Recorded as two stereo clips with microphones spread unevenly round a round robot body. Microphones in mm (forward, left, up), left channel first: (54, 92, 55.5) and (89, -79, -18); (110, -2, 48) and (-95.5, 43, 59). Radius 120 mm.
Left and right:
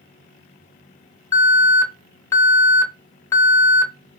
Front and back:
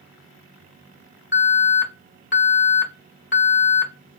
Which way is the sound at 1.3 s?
20° left.